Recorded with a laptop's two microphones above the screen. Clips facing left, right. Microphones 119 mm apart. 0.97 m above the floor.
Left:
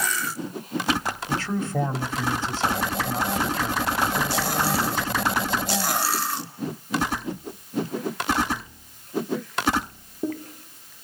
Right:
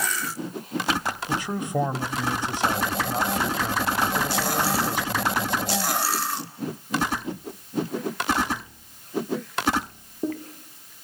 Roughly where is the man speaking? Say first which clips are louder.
Left 1 dB; centre.